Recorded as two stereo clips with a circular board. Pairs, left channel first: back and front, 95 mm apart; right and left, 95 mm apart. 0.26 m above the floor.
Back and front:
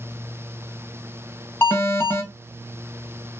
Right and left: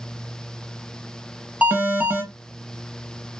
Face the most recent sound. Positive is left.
turn(degrees=145)